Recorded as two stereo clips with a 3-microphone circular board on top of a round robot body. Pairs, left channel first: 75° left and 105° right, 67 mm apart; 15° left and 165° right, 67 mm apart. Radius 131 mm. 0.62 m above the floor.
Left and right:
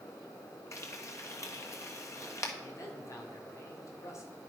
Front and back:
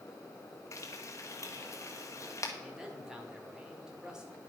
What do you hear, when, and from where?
0.7 s frying: 45° left, 1.7 m
2.6 s a man speaking: 115° left, 2 m